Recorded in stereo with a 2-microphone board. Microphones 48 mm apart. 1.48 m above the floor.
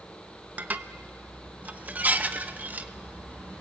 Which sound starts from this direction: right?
Dishes clattering, at 0.6 s.